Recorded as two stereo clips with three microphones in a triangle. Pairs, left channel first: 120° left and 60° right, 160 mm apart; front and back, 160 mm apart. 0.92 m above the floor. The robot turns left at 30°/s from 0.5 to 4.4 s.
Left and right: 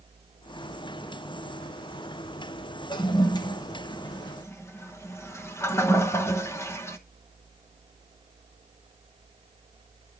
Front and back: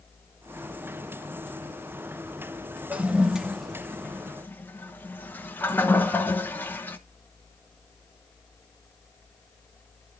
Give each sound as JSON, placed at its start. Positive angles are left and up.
{"t": 2.9, "sound": "a toilet flushing", "azimuth_deg": 110, "distance_m": 0.9}